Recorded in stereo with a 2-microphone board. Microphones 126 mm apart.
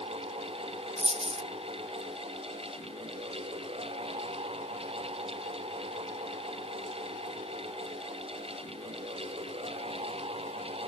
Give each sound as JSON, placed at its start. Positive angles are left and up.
{"t": 1.0, "sound": "a dropped coin", "side_deg": -60}